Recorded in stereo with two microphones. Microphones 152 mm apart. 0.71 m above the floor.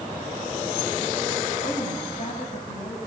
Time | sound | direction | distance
1.6 | a woman speaking | 50° left (ahead or behind) | 5.5 m